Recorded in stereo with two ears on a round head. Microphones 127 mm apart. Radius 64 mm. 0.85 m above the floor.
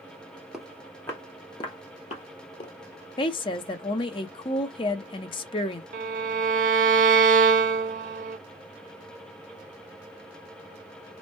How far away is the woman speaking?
About 0.6 m.